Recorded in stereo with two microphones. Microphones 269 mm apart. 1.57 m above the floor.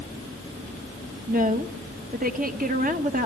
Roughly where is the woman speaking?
Right.